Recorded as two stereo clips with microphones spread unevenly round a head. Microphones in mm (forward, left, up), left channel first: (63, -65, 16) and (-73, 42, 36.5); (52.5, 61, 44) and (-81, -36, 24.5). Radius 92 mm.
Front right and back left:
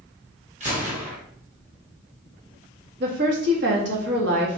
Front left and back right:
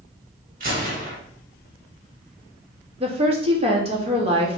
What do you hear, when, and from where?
0.6 s a gunshot: 170° right, 1.8 m
3.0 s a woman speaking: 165° left, 1.4 m